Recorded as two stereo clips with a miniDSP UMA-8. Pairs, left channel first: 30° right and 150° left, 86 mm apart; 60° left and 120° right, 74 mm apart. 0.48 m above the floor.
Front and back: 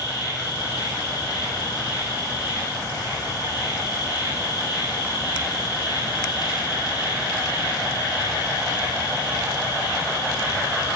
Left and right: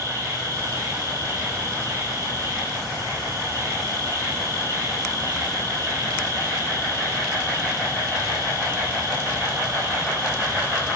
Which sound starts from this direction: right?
An insect, at 0.0 s.